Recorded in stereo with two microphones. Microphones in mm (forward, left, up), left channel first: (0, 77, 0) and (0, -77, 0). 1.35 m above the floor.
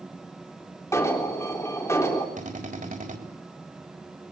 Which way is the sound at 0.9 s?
20° left (ahead or behind).